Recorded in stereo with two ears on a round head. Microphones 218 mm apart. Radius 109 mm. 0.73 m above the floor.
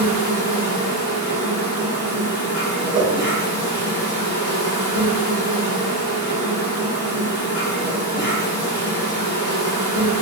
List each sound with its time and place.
0.0 s an insect: 45° left (ahead or behind), 1.8 m
2.9 s a whoosh: 30° right (ahead or behind), 0.9 m